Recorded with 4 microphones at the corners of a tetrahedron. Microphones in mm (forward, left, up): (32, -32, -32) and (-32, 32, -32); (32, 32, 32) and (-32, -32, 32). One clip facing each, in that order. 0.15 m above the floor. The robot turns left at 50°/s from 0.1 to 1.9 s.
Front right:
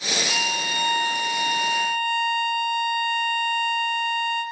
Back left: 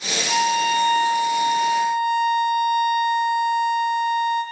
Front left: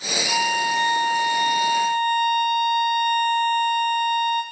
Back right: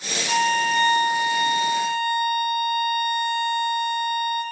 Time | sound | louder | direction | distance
0.3 | a violin | back left 13 dB, back right 2 dB | 160° left | 5.5 m